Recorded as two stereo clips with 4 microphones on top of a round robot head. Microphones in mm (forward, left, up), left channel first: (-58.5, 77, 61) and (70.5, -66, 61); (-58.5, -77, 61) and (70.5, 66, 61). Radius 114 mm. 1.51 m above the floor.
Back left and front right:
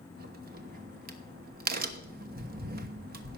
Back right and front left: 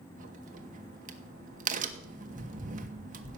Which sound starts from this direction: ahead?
A crack, at 0.2 s.